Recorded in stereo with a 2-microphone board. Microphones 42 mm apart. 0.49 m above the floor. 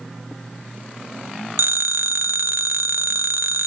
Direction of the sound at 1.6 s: 65° right (ahead or behind).